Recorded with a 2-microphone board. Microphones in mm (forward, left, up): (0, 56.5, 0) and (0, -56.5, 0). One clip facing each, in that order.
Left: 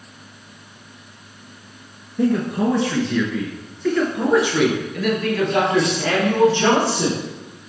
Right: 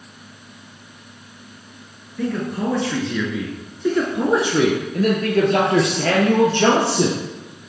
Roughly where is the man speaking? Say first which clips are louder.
Left 4 dB; centre.